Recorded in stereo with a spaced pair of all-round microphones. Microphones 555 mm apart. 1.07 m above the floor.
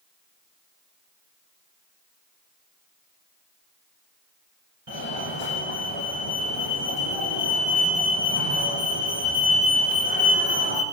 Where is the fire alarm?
50° right (ahead or behind), 8.5 m.